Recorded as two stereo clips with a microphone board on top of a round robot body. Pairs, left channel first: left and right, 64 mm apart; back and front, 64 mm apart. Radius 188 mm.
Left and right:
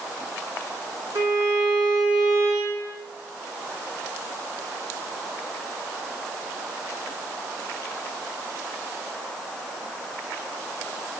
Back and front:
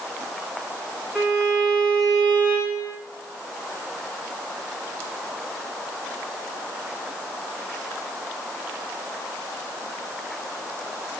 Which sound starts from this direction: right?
A violin, at 1.1 s.